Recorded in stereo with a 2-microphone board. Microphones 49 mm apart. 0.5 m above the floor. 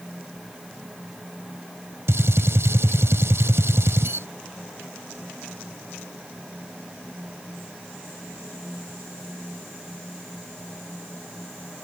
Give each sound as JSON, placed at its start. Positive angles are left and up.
{"t": 2.1, "sound": "a gunshot", "side_deg": -70}